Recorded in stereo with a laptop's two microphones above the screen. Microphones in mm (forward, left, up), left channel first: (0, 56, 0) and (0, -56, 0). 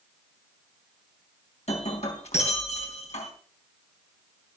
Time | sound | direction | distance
1.7 | breaking glass | 85° left | 3.5 m